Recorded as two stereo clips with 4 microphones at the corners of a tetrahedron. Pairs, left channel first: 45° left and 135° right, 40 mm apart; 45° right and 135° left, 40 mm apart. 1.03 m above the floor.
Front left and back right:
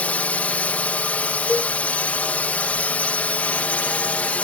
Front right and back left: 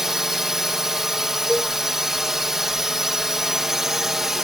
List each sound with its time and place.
0.0 s a drone: 60° left
1.5 s a cowbell: 15° left